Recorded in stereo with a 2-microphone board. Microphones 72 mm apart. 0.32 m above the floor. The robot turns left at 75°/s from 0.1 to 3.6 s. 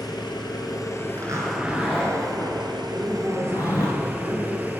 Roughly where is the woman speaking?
Ahead.